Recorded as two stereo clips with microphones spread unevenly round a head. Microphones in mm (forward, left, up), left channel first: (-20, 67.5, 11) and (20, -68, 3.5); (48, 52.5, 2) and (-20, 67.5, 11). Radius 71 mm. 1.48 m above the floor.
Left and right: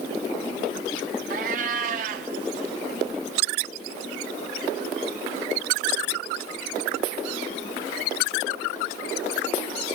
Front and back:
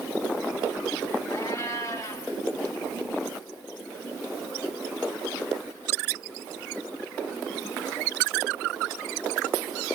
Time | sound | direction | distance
1.3 | a cat meowing | 70° right | 1.2 m